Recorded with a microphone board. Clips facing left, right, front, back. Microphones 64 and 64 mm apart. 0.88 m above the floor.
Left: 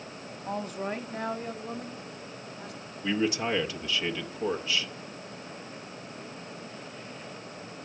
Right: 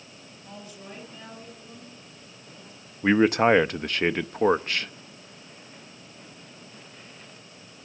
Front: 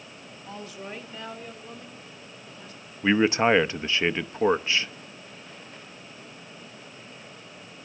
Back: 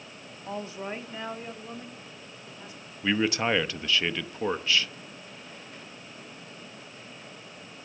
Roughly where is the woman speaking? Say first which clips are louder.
Left 11 dB, back 4 dB; behind left.